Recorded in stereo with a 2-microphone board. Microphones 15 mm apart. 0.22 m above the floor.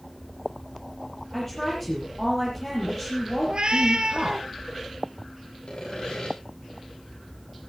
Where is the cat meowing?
50° right (ahead or behind), 2 m.